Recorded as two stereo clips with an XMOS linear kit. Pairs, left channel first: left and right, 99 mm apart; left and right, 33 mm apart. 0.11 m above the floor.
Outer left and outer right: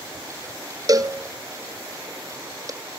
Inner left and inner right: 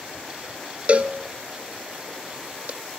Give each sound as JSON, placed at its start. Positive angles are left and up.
{"t": 0.9, "sound": "a cowbell", "side_deg": -40, "distance_m": 1.4}